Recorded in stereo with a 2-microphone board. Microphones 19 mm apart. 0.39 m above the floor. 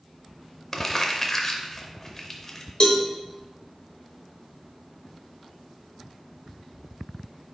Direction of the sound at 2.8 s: 45° left (ahead or behind).